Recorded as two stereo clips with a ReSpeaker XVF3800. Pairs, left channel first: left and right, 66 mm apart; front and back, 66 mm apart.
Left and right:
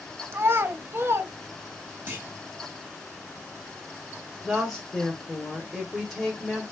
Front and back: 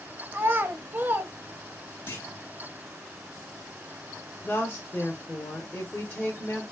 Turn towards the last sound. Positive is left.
turn(degrees=5)